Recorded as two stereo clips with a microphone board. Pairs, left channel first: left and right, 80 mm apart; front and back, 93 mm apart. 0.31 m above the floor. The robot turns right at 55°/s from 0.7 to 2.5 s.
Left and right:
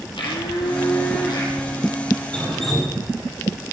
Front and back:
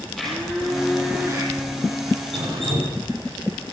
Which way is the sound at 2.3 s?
165° left.